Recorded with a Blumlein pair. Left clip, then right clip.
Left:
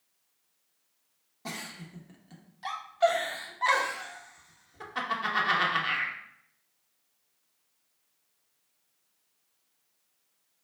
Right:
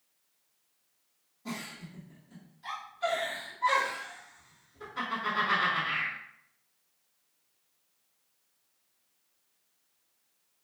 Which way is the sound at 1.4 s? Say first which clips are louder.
Left 1 dB; 35° left.